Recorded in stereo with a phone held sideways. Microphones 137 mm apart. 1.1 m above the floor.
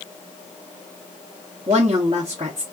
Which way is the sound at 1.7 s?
55° right (ahead or behind).